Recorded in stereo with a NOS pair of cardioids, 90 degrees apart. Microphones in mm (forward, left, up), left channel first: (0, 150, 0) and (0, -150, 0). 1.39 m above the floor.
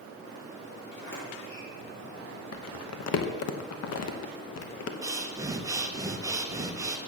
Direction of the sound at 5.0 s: 10° right.